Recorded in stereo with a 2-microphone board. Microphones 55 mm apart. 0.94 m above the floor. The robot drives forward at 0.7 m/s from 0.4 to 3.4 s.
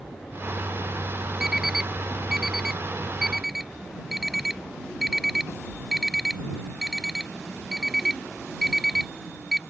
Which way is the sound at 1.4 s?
10° right (ahead or behind).